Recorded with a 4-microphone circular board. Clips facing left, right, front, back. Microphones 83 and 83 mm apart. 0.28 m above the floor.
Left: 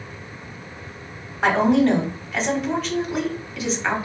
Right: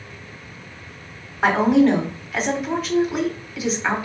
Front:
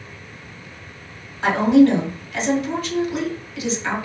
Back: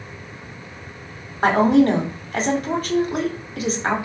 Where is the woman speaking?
175° right, 1.3 m.